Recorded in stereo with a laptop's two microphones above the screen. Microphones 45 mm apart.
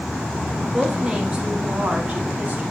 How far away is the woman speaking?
About 1.6 m.